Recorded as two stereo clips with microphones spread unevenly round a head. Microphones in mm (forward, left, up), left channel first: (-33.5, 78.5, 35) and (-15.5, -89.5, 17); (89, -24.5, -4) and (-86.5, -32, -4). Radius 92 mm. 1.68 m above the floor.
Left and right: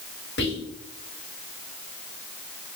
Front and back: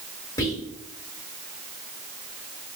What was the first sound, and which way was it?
Whispering, 75° left.